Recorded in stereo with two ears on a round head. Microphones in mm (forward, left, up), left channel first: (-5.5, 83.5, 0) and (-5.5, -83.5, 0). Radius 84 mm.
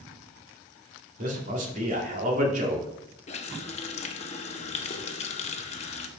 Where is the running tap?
35° left (ahead or behind), 0.8 m.